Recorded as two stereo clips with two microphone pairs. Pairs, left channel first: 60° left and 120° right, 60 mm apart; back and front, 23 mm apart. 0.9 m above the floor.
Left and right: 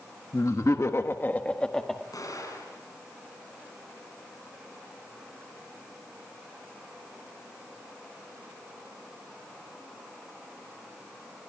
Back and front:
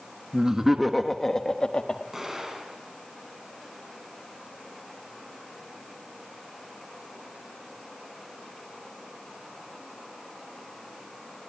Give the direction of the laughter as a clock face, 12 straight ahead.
10 o'clock.